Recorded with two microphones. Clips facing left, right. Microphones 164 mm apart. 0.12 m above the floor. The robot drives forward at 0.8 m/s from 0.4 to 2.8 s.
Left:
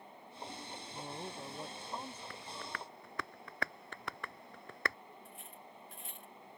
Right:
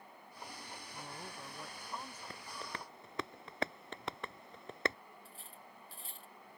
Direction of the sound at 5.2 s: 35° right (ahead or behind).